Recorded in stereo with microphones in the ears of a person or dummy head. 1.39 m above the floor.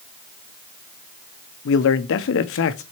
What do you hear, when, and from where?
1.6 s a man speaking: 60° left (ahead or behind), 0.8 m